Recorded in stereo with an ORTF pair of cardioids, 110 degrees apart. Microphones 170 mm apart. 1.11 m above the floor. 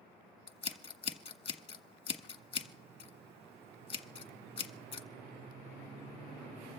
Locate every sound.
0.5 s scissors: 30° left, 1.5 m